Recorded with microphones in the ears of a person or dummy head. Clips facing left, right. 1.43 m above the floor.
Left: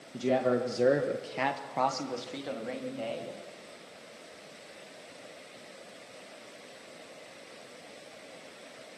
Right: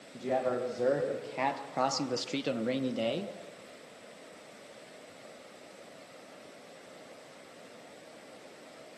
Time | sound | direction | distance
0.1 | a man speaking | 50° left (ahead or behind) | 1.7 m